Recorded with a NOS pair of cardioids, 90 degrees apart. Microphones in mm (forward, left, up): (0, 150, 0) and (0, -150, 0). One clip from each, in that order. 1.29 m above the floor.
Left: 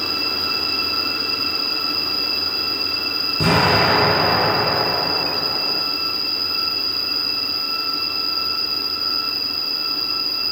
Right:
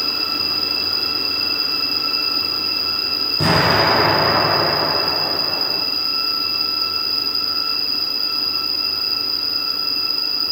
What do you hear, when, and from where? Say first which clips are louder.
0.0 s an insect: right 1 dB; 45° right, 0.9 m
3.4 s an explosion: even; 5° right, 0.9 m